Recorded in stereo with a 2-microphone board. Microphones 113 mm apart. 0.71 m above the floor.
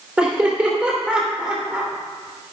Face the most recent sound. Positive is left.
turn(degrees=-10)  # may be behind; listen again after turning